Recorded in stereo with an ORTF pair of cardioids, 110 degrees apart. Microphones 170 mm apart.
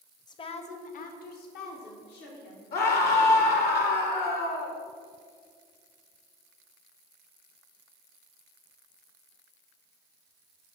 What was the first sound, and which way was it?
A woman speaking, 25° left.